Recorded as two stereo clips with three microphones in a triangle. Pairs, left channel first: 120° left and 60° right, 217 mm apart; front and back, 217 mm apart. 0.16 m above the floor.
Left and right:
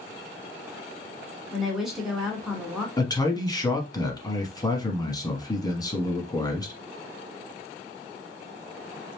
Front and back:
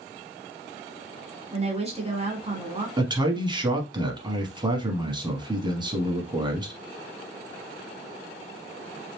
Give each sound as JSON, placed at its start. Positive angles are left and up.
{"t": 1.5, "sound": "a woman speaking", "azimuth_deg": -145, "distance_m": 1.5}
{"t": 3.0, "sound": "a man speaking", "azimuth_deg": 160, "distance_m": 1.1}